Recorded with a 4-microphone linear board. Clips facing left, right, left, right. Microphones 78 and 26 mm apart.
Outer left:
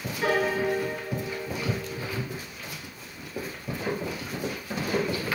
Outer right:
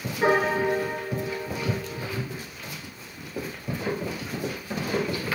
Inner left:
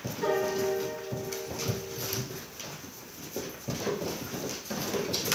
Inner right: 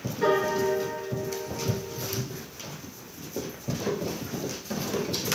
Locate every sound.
0.2 s a piano: 30° right (ahead or behind), 2 m